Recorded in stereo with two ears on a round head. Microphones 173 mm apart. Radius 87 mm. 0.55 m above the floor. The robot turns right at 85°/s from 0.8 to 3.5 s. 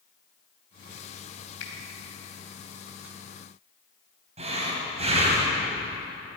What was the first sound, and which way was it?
A finger snap, 65° left (ahead or behind).